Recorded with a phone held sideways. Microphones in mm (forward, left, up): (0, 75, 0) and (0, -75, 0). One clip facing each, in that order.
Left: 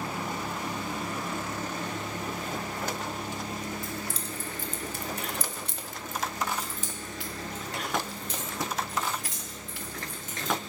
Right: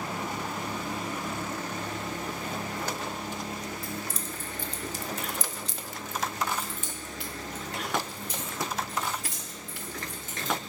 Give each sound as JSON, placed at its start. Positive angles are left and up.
{"t": 3.8, "sound": "keys jangling", "side_deg": 20, "distance_m": 0.9}